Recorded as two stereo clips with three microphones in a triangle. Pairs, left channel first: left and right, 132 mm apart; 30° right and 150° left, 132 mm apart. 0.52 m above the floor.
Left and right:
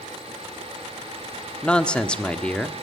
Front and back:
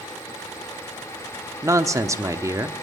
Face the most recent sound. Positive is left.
turn(degrees=160)